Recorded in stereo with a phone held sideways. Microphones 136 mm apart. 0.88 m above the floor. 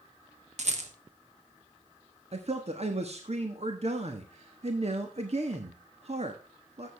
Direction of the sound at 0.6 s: 60° right (ahead or behind).